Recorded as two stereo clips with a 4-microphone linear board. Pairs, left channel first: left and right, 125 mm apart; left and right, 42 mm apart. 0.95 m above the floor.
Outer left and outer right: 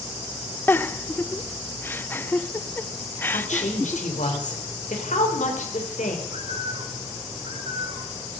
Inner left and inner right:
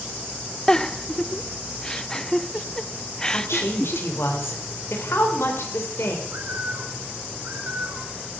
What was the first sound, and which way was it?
A giggle, 15° left (ahead or behind).